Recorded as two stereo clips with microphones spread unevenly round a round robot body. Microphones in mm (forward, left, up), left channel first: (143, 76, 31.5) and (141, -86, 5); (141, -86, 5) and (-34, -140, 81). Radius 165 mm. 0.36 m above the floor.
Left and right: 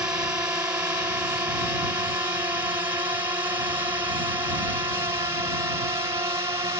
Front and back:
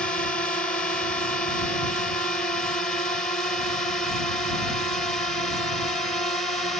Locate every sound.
0.0 s a drone: 25° right; by 6.8 s 40° right